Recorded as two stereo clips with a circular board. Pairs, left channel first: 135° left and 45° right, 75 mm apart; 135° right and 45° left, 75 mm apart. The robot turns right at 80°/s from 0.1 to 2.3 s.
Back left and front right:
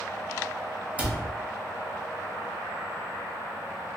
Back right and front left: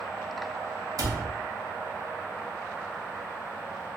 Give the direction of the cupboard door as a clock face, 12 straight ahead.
11 o'clock.